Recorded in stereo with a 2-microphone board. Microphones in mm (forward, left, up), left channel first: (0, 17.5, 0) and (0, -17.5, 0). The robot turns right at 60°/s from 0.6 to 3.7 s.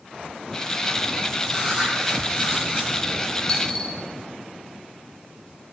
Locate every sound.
1.5 s writing: 170° left, 1.5 m; by 2.9 s 105° right, 1.5 m
3.5 s a dropped coin: 20° left (ahead or behind), 1.0 m; by 4.0 s 30° left (ahead or behind), 1.0 m